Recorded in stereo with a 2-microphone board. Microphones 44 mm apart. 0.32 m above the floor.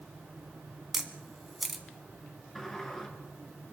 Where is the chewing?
I don't hear chewing.